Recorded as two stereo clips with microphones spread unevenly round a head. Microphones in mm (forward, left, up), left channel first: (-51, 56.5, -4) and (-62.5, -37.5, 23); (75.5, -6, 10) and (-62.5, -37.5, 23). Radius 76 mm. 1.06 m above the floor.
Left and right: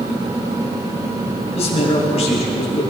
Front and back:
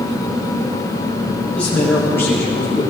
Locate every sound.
1.5 s a man speaking: 95° left, 8.5 m; by 2.8 s 85° left, 9 m